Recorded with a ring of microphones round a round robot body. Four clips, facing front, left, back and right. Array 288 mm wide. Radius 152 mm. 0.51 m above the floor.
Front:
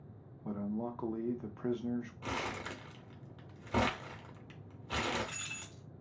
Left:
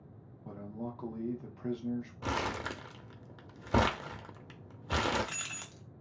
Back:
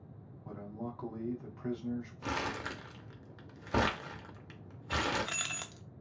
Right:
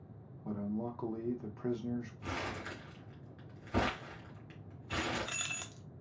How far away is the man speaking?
About 0.8 m.